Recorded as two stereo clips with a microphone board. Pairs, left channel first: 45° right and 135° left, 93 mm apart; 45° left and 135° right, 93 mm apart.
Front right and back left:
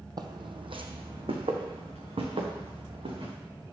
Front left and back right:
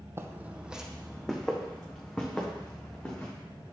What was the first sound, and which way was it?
Footsteps, 170° left.